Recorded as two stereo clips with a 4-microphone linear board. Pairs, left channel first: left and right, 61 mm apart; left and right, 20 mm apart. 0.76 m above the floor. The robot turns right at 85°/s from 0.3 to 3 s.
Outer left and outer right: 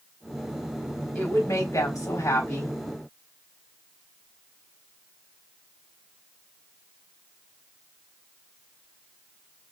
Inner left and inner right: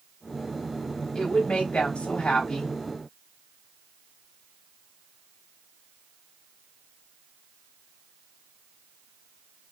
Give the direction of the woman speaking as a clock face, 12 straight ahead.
11 o'clock.